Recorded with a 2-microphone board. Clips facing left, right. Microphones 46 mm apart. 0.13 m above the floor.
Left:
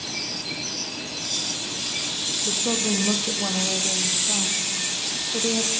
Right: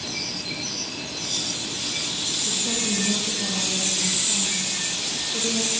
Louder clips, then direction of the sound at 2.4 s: Left 4 dB; 55° left (ahead or behind).